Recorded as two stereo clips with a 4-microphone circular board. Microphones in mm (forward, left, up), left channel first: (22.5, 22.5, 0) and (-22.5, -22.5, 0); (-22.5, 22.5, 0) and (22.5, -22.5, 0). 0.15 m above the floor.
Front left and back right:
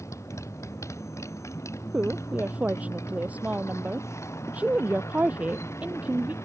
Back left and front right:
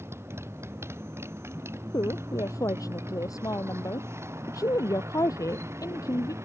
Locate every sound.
0.0 s a motorcycle: 5° left; by 6.5 s straight ahead
1.9 s a woman speaking: 160° left